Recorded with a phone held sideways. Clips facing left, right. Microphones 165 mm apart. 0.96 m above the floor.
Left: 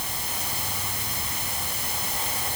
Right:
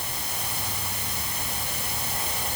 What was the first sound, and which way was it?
Only background noise.